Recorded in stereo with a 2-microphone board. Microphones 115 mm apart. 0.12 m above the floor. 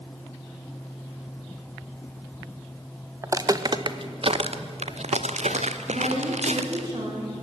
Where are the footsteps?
25° right (ahead or behind), 1.5 m; by 6.9 s 70° right (ahead or behind), 2.5 m.